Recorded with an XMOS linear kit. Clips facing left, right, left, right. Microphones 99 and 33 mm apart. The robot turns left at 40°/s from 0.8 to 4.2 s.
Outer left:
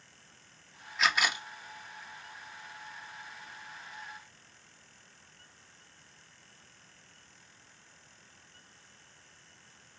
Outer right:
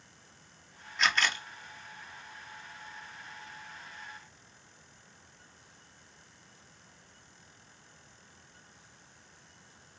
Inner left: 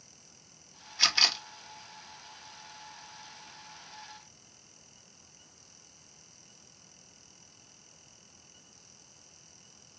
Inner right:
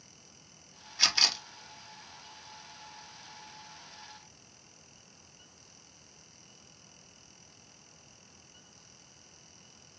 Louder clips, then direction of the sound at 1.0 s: Even, inner left 1 dB; centre (ahead or behind).